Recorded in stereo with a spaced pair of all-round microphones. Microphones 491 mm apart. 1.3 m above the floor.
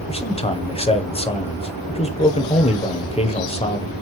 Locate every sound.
0.1 s a man speaking: 10° left (ahead or behind), 0.6 m